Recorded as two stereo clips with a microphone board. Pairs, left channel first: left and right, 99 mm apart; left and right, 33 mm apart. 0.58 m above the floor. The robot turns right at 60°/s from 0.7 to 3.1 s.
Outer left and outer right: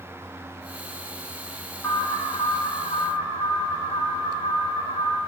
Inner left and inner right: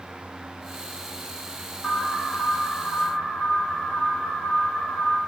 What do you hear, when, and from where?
1.8 s an alarm: 20° left, 6.5 m; by 5.2 s 95° left, 6.5 m